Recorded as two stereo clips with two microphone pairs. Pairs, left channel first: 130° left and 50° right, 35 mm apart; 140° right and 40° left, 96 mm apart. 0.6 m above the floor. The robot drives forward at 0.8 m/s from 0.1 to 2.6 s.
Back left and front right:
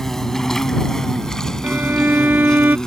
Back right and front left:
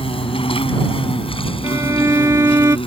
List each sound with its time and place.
0.0 s an insect: 150° right; by 2.9 s 155° right
1.6 s a violin: 15° right; by 2.8 s 20° right